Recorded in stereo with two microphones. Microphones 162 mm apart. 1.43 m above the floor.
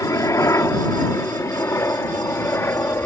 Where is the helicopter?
20° left (ahead or behind); by 3.1 s 15° left (ahead or behind).